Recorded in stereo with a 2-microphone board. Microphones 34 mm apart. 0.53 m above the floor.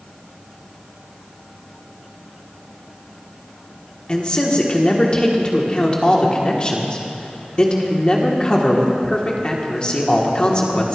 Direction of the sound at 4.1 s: 30° left (ahead or behind).